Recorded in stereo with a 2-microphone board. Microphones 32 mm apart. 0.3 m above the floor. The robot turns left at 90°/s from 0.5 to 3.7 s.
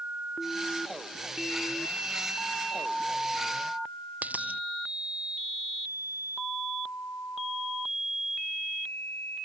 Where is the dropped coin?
55° right (ahead or behind).